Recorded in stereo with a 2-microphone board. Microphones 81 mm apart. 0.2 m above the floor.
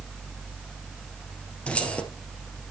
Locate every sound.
1.7 s keys jangling: 15° left (ahead or behind), 3 m